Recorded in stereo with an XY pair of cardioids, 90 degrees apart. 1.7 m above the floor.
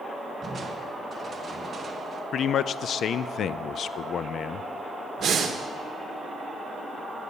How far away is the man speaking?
About 0.6 m.